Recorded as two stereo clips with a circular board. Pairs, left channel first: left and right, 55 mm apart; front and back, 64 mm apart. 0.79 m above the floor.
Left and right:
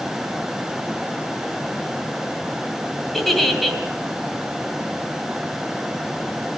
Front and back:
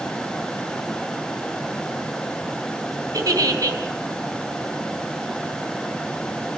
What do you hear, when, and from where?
3.1 s a giggle: straight behind, 3 m